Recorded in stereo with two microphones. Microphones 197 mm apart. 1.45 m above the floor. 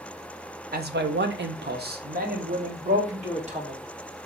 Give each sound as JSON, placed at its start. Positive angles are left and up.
{"t": 0.7, "sound": "a man speaking", "side_deg": -55, "distance_m": 0.7}